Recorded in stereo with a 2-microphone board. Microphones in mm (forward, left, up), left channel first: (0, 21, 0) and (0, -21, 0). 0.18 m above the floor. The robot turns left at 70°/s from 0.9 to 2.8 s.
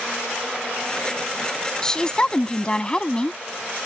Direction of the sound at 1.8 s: 15° left (ahead or behind).